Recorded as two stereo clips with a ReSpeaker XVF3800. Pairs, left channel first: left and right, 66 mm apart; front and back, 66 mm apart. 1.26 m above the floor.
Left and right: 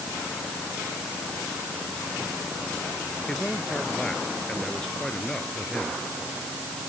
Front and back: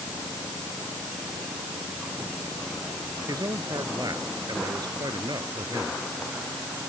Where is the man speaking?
170° left.